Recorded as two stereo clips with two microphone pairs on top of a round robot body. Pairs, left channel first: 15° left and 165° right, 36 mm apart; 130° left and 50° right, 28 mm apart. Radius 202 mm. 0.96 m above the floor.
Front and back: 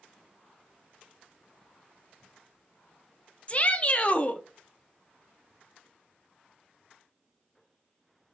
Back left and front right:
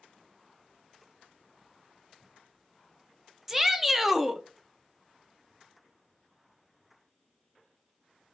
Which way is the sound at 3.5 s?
10° left.